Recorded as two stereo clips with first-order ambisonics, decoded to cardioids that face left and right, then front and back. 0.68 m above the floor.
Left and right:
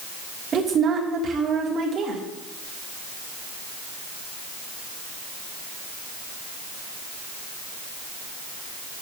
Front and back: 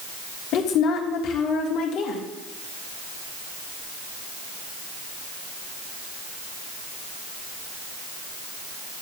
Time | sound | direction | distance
0.5 | a woman speaking | 30° right | 1.6 m